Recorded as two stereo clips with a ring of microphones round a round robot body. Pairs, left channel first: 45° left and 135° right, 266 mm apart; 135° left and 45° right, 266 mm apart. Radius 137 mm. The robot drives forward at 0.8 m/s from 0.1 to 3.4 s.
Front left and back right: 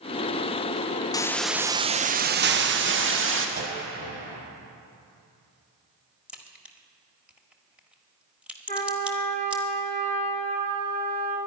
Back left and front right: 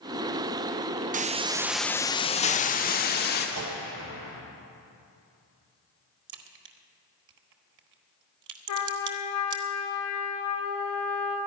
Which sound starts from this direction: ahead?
A hiss, at 1.1 s.